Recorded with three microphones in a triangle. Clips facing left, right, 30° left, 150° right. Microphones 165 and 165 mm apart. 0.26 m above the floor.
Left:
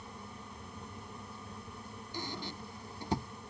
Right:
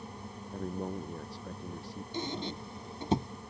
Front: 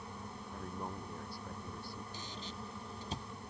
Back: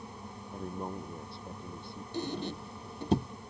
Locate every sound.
0.5 s a man speaking: 85° right; by 2.0 s 80° right
2.1 s a squeak: 155° right